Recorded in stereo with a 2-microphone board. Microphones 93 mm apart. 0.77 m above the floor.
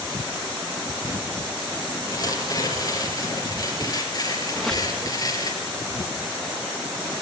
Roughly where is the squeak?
Centre.